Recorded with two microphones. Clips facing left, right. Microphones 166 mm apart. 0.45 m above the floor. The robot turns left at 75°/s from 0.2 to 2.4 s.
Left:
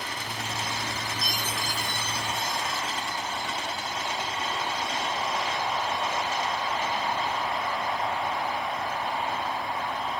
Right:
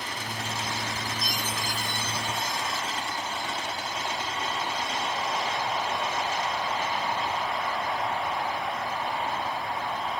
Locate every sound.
1.2 s a chime: 30° left (ahead or behind), 1.0 m; by 2.8 s centre (ahead or behind), 1.0 m